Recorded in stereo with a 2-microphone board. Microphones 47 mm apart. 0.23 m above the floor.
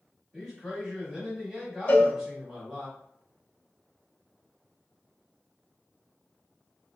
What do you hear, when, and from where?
0.3 s a man speaking: 10° right (ahead or behind), 1.2 m
1.9 s a cowbell: 35° left (ahead or behind), 0.5 m